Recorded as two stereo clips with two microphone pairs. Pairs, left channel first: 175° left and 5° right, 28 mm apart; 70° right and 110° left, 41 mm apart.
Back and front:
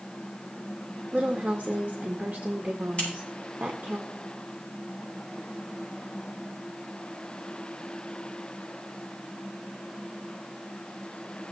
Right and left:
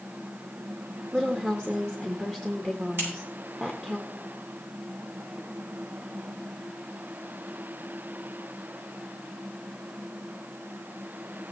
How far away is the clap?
I don't hear a clap.